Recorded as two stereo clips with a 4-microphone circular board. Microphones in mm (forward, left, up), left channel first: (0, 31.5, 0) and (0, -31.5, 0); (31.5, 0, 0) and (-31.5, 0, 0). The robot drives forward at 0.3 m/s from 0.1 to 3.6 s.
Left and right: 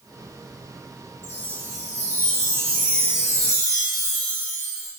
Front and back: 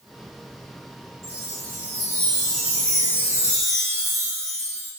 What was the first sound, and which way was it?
A chime, 145° left.